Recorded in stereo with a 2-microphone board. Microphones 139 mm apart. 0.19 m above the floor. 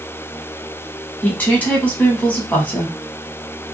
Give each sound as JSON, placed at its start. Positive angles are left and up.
{"t": 1.2, "sound": "a woman speaking", "side_deg": 10, "distance_m": 1.1}